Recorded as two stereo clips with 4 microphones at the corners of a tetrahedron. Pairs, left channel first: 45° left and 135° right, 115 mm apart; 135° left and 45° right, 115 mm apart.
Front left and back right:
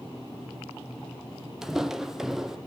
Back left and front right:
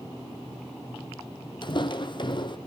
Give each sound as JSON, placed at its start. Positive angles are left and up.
{"t": 1.6, "sound": "footsteps", "azimuth_deg": 140, "distance_m": 1.1}